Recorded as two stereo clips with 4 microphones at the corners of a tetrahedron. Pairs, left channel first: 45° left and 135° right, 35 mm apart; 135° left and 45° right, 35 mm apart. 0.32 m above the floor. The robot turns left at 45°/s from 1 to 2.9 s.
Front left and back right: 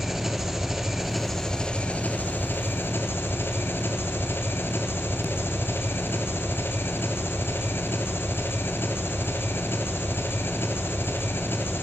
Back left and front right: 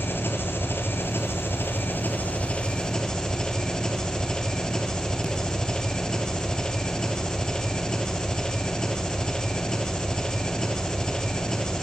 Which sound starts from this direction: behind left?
An engine running, at 0.0 s.